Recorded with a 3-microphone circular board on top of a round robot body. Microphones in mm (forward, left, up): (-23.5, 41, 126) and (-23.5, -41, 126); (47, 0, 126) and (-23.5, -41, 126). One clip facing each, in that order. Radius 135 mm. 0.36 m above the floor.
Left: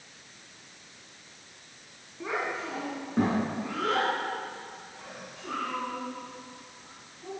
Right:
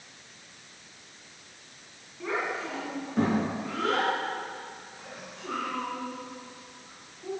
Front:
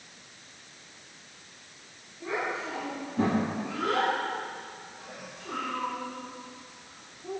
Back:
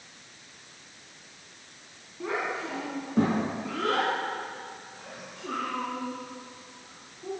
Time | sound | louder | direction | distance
2.2 | a child speaking | right 1 dB, back 1 dB | 165° left | 3 m